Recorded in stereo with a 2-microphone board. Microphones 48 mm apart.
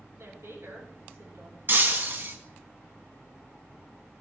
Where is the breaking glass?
45° right (ahead or behind), 1.7 m.